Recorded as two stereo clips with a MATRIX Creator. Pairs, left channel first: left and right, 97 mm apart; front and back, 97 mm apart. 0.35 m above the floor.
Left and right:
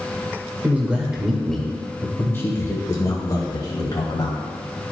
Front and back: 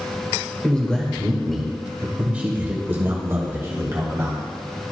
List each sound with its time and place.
0.6 s a man speaking: 50° right, 1.3 m; by 4.4 s 125° left, 2.5 m